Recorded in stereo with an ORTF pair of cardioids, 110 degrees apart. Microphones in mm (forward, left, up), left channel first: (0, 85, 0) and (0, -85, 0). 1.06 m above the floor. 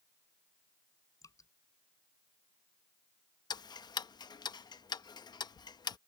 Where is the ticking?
25° left.